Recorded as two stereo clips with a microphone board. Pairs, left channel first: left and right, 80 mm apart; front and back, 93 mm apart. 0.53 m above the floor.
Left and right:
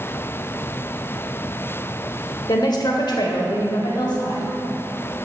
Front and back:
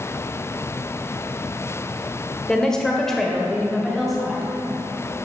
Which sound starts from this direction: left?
A woman speaking, at 2.5 s.